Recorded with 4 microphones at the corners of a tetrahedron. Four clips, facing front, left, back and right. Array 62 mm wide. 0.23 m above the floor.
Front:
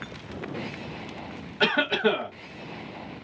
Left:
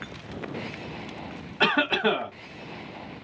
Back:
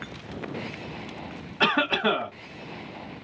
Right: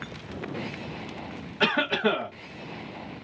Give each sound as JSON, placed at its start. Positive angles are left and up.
{"t": 1.6, "sound": "a cough", "azimuth_deg": 115, "distance_m": 1.2}